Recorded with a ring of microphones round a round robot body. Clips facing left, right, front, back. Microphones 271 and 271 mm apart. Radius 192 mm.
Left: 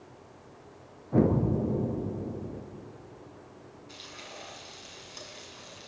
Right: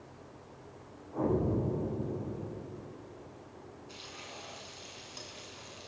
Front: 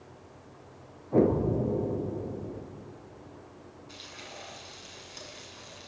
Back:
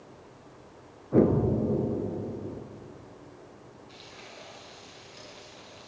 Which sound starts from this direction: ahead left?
Frying, at 3.9 s.